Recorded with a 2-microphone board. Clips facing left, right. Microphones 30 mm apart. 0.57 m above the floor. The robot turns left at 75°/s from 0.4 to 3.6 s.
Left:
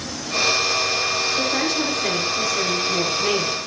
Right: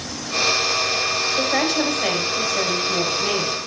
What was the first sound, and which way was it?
A woman speaking, 30° right.